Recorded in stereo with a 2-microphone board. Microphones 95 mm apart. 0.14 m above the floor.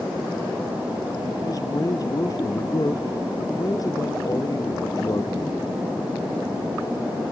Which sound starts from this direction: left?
A man speaking, at 1.5 s.